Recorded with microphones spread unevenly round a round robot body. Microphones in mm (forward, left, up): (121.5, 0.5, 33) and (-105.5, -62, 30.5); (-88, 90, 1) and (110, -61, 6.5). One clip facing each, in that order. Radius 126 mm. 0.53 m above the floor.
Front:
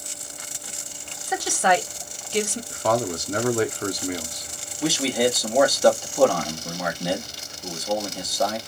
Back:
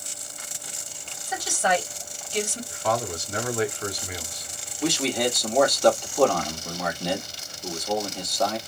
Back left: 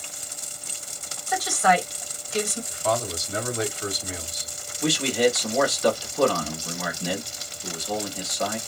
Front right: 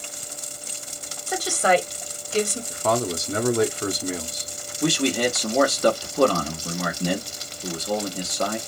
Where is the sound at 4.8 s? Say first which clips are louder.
Front 3 dB, even; 70° right, 1.2 m.